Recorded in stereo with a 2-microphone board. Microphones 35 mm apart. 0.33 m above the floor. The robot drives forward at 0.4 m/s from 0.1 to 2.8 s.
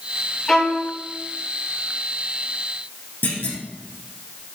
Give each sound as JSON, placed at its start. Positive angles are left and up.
{"t": 0.5, "sound": "a violin", "side_deg": 20, "distance_m": 2.5}
{"t": 3.2, "sound": "a clunk", "side_deg": 80, "distance_m": 3.0}